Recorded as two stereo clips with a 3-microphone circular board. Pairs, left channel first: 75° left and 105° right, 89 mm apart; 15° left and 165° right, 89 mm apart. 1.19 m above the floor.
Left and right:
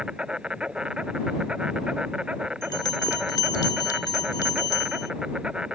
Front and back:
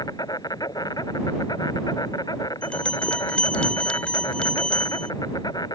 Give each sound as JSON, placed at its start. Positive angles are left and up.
{"t": 0.0, "sound": "an insect", "azimuth_deg": -25}
{"t": 2.6, "sound": "a bell", "azimuth_deg": 90}